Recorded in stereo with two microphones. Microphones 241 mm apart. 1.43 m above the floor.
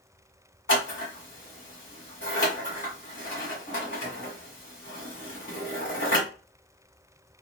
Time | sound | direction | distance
0.7 | scissors | 50° left (ahead or behind) | 2.5 m